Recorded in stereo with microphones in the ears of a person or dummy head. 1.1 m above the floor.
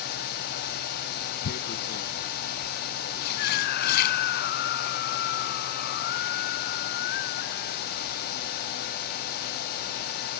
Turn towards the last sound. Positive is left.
turn(degrees=60)  # may be behind; listen again after turning